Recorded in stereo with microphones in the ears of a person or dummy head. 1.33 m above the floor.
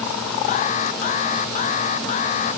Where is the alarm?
40° left (ahead or behind).